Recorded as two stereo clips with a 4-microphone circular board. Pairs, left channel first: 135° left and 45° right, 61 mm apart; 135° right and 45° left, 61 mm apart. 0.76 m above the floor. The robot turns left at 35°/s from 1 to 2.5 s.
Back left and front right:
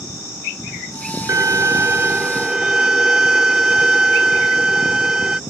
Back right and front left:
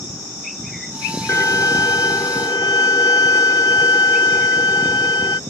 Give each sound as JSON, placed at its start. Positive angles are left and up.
{"t": 1.3, "sound": "a violin", "azimuth_deg": -85}